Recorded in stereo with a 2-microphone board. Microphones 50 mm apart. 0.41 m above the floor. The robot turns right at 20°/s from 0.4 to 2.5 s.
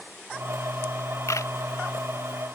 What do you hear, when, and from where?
1.3 s a camera shutter: 85° left; by 1.5 s 90° left